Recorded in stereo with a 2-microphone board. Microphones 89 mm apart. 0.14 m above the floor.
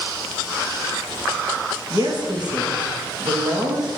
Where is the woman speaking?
50° right (ahead or behind), 3 m.